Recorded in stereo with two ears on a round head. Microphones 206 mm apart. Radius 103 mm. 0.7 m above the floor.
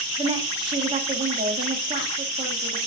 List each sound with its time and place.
0.2 s a woman speaking: 25° right (ahead or behind), 1.3 m